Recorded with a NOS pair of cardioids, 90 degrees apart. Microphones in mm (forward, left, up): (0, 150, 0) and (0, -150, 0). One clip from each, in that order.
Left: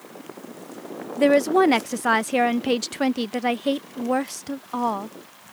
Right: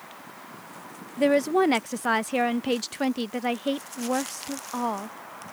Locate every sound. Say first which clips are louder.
1.2 s a woman speaking: left 4 dB; 15° left